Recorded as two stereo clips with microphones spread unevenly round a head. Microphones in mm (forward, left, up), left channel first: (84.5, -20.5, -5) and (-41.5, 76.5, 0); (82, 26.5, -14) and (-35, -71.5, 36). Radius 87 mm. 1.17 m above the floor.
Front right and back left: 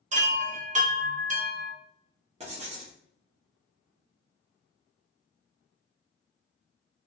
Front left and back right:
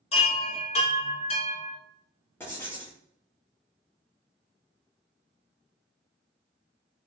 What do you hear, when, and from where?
0.1 s a chime: 95° left, 0.6 m
2.4 s writing: 100° left, 0.8 m